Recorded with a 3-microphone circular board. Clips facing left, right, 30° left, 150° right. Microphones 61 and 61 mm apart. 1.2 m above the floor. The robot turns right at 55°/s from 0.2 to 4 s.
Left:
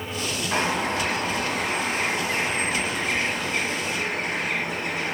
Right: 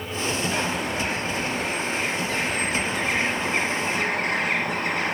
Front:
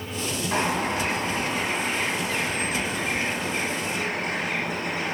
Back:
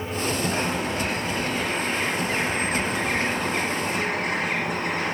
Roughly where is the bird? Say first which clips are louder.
Left 2 dB, front 1 dB; ahead left.